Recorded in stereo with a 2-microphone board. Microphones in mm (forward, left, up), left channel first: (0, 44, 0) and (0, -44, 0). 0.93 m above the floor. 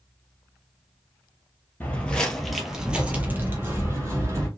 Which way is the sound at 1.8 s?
20° left (ahead or behind).